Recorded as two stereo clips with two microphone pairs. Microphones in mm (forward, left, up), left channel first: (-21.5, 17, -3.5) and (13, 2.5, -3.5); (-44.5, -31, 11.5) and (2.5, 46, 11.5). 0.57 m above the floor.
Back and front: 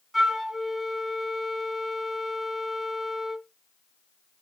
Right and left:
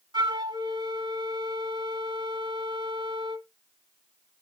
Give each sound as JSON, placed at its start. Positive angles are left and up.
{"t": 0.1, "sound": "a flute", "azimuth_deg": 55, "distance_m": 0.7}